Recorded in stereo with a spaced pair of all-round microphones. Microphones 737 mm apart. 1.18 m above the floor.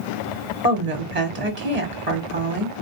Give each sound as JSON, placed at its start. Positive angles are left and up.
{"t": 0.6, "sound": "a woman speaking", "side_deg": -55, "distance_m": 1.6}